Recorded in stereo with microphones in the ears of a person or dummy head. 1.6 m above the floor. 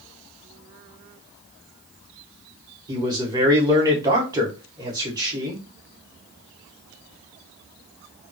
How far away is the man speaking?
About 1.3 m.